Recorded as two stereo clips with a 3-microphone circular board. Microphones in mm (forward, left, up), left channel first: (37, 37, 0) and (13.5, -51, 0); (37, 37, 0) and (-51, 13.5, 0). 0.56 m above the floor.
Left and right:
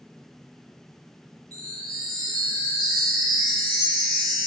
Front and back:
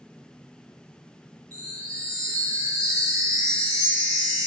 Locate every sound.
1.5 s a chime: 135° right, 1.8 m